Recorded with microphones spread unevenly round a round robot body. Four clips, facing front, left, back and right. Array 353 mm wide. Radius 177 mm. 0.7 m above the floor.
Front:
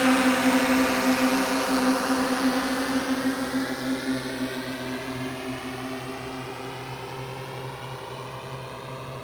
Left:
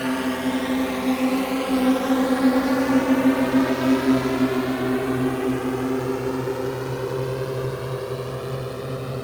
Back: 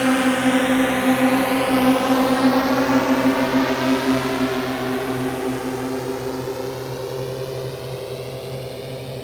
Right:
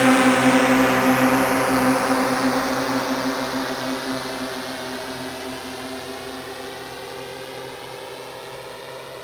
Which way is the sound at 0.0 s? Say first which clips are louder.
Right 8 dB, back 3 dB; 125° right.